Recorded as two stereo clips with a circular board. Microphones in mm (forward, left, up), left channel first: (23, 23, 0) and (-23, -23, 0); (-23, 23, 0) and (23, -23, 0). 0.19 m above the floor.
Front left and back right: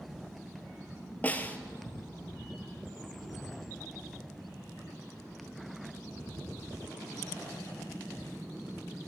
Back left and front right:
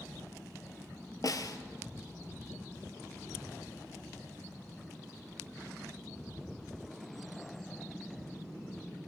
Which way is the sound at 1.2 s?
110° left.